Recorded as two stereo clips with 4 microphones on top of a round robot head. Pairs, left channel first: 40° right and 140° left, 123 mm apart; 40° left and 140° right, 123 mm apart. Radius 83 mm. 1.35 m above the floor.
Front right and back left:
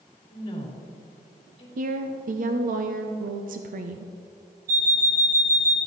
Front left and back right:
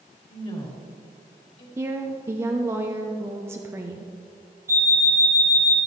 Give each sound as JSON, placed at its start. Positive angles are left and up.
{"t": 0.3, "sound": "a woman speaking", "azimuth_deg": 5, "distance_m": 4.0}
{"t": 1.8, "sound": "a woman speaking", "azimuth_deg": 150, "distance_m": 0.7}
{"t": 4.7, "sound": "an alarm clock", "azimuth_deg": 150, "distance_m": 2.5}